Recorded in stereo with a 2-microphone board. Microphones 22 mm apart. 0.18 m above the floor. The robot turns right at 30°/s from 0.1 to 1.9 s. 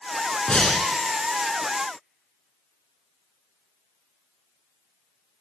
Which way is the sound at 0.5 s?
40° left (ahead or behind).